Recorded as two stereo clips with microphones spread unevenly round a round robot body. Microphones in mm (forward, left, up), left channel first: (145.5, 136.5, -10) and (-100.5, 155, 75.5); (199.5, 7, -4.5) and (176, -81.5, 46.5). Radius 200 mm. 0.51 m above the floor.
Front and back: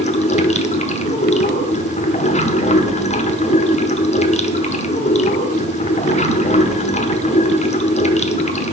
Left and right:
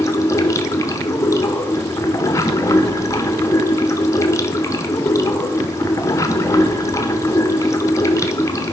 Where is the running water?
45° left, 1.0 m.